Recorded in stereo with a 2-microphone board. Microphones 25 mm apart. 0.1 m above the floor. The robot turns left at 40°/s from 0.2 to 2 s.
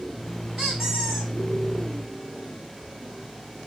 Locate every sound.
0.6 s a squeak: 150° right, 0.8 m; by 1.3 s straight behind, 0.8 m